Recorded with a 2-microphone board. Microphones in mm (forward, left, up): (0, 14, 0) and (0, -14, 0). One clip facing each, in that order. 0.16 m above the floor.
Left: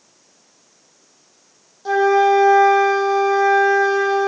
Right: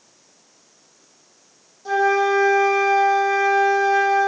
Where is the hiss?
I don't hear a hiss.